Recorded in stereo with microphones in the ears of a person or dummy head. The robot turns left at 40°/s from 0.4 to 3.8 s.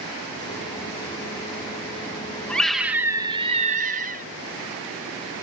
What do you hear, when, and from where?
2.5 s a scream: 10° left; by 4.2 s 40° right